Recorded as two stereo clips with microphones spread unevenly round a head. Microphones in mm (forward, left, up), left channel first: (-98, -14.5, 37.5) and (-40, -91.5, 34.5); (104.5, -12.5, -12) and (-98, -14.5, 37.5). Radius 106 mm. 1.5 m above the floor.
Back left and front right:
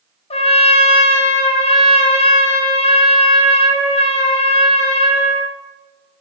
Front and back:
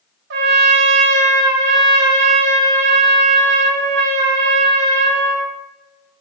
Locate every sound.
0.3 s a trumpet: 145° left, 0.5 m